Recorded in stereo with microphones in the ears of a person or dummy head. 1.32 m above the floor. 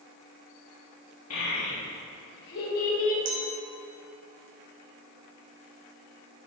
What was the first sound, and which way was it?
A child speaking, 85° left.